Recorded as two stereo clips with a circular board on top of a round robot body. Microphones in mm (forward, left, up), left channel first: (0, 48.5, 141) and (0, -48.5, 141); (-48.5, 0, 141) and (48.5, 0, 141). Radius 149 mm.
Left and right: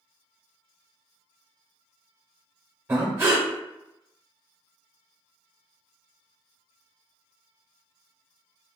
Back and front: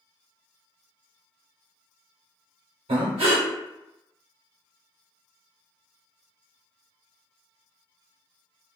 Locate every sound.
2.9 s breathing: 20° right, 0.6 m